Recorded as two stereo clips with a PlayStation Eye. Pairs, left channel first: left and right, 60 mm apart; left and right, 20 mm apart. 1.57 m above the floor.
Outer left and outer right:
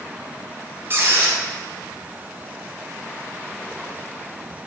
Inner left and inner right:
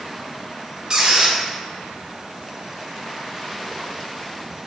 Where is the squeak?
35° right (ahead or behind), 0.7 m.